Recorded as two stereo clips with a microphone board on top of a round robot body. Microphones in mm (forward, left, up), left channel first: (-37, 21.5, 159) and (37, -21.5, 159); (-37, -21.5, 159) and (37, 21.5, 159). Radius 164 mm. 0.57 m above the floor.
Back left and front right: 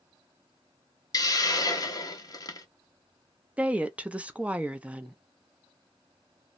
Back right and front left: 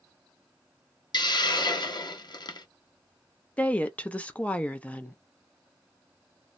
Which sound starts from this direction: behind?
A hiss, at 1.1 s.